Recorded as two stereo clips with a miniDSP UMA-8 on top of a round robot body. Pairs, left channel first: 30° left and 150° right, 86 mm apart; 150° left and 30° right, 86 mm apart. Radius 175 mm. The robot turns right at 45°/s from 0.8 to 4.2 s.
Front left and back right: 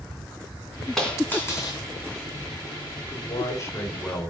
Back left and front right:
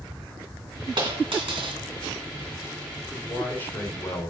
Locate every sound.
1.0 s a dropped coin: 55° right, 2.5 m; by 1.8 s 20° right, 2.5 m
3.1 s a man speaking: 60° left, 3 m; by 4.3 s 110° left, 3 m